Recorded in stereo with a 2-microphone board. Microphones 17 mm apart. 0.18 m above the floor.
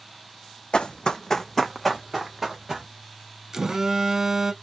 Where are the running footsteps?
80° left, 0.6 m; by 2.9 s 10° right (ahead or behind), 1.6 m.